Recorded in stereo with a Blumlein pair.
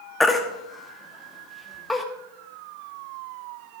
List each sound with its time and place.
0.2 s a baby crying: 10° left, 1.5 m